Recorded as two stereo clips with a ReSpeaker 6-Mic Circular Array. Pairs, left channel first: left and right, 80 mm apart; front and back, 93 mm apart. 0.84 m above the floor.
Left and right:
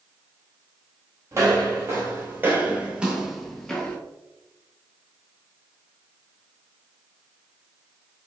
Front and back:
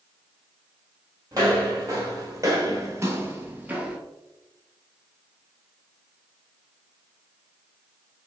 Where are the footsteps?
135° right, 1.6 m; by 4.0 s 130° left, 0.8 m.